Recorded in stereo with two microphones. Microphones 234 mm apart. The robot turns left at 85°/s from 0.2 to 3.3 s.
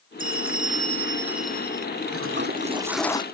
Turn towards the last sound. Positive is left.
turn(degrees=155)